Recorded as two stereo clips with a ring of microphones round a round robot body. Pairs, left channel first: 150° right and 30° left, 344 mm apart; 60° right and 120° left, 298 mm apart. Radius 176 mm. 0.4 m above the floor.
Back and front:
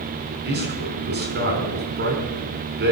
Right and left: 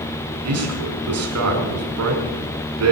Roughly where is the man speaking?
Left.